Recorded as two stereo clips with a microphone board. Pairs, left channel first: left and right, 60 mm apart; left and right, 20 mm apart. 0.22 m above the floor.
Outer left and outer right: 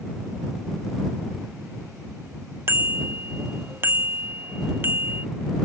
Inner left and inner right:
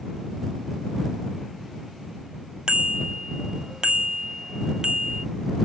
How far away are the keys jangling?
I don't hear keys jangling.